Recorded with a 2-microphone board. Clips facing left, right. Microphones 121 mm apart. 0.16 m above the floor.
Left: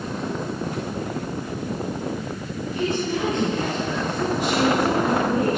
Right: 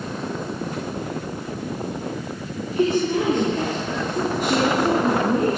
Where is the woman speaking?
65° right (ahead or behind), 3 m; by 5.6 s 40° right (ahead or behind), 2 m.